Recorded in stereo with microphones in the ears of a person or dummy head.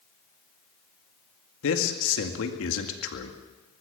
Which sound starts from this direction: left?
A man speaking, at 1.6 s.